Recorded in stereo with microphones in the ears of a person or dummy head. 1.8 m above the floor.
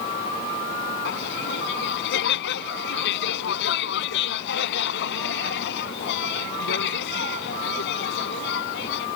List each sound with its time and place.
1.1 s laughter: 65° left (ahead or behind)